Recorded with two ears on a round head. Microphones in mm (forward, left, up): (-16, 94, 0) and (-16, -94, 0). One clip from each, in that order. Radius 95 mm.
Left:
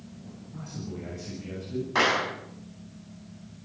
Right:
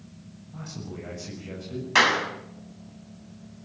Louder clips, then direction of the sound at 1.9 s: Right 4 dB; 75° right (ahead or behind).